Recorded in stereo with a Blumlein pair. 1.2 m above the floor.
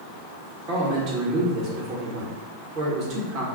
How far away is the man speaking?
About 1.5 m.